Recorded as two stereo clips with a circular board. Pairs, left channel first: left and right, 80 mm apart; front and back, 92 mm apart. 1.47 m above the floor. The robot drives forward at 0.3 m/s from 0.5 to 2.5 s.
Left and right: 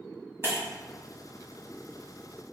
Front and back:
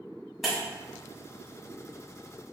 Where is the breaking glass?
90° right, 1.5 m.